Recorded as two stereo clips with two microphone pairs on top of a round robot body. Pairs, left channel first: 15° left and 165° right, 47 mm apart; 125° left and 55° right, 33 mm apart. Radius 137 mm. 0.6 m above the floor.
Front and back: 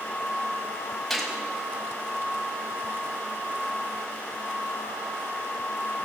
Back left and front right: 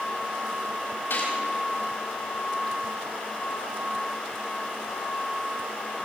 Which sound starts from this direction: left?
A gunshot, at 1.1 s.